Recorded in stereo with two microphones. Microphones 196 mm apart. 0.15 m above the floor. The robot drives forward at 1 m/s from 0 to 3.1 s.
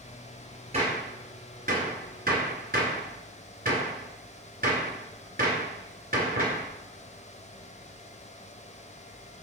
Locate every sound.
0.7 s a gunshot: 35° right (ahead or behind), 2.5 m; by 6.6 s 50° right (ahead or behind), 1.8 m